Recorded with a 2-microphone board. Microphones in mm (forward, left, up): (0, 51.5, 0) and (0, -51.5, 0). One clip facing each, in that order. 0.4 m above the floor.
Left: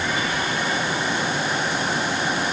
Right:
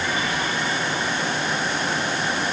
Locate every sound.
Only background noise.